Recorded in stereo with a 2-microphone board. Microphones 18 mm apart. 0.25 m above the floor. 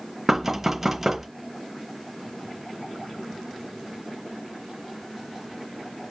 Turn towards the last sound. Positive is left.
turn(degrees=-20)  # may be behind; listen again after turning